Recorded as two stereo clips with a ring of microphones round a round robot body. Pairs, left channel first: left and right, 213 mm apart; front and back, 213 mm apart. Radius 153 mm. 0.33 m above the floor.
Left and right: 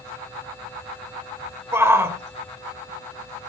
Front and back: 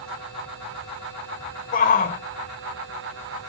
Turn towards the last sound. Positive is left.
turn(degrees=-15)